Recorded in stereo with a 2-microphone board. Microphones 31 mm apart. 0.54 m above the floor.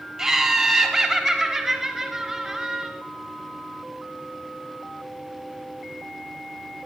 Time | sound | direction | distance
0.2 | laughter | 20° right (ahead or behind) | 1.2 m